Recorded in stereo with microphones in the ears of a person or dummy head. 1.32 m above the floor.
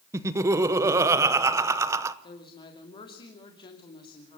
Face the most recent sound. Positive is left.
turn(degrees=30)  # may be behind; listen again after turning